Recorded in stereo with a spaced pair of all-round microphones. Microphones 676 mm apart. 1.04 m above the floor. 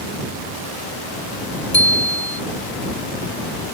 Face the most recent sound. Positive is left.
turn(degrees=40)  # may be behind; listen again after turning